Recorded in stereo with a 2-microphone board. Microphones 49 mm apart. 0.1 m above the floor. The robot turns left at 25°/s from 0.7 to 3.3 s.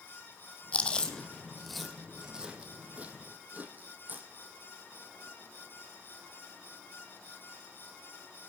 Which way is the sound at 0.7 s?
25° left (ahead or behind).